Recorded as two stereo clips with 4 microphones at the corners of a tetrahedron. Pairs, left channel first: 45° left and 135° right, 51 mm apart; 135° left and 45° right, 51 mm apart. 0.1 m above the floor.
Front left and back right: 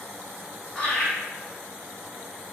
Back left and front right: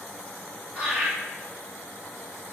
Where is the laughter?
Straight ahead, 2.0 m.